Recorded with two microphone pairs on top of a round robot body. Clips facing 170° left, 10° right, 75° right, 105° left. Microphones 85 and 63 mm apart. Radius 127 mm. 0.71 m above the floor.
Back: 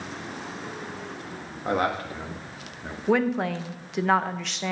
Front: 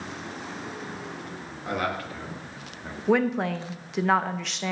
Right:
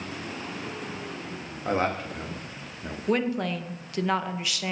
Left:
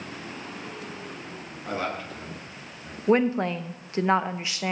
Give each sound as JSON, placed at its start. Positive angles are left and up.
{"t": 1.6, "sound": "a man speaking", "azimuth_deg": -130, "distance_m": 1.8}
{"t": 3.1, "sound": "a woman speaking", "azimuth_deg": 70, "distance_m": 0.7}